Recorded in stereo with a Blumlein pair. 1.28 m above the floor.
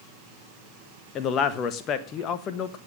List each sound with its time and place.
1.1 s a man speaking: 30° left, 1.5 m